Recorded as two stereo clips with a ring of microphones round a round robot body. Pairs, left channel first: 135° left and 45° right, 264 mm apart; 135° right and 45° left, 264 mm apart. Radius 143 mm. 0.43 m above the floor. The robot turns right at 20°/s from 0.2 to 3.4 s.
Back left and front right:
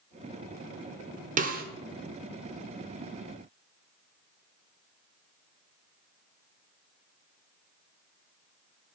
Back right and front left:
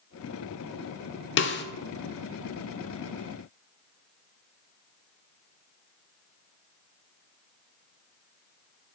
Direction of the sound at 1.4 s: 100° right.